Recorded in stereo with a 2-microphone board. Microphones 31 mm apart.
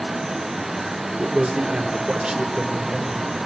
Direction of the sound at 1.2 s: 40° right (ahead or behind).